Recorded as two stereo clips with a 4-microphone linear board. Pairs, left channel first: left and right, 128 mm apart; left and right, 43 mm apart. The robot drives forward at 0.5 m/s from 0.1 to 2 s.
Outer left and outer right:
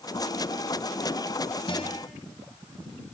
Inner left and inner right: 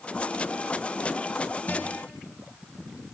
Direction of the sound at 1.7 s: 40° left (ahead or behind).